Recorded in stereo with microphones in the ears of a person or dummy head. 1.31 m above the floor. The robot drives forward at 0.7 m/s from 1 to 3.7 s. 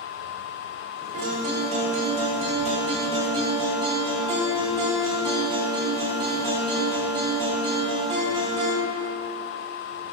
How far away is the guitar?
About 1.6 m.